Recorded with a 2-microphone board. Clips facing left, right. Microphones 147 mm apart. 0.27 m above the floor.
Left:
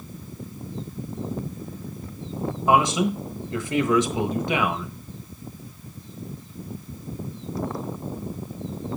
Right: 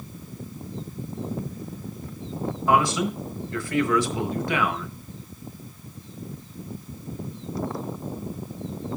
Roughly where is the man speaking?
Left.